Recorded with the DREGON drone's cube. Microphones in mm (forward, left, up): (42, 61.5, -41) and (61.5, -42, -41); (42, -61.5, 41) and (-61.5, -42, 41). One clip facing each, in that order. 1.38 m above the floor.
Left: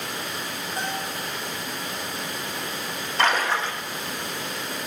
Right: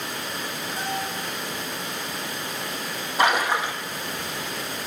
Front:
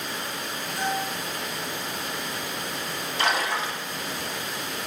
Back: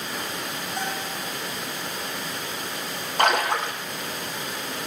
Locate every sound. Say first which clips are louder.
0.8 s a bell: right 1 dB, front 4 dB; 150° left, 4 m
3.2 s a splash: right 1 dB, back 4 dB; 155° right, 1.4 m